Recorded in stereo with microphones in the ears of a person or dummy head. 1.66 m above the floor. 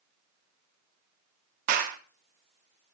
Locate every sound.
1.7 s a clap: 50° right (ahead or behind), 1.0 m